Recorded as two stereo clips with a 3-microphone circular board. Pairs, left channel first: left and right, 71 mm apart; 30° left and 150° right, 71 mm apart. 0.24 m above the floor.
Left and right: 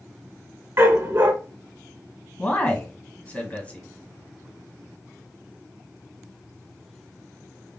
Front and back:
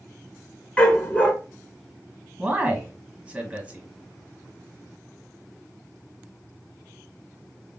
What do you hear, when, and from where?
0.8 s a dog barking: 40° right, 0.9 m
2.4 s a man speaking: 145° left, 1.3 m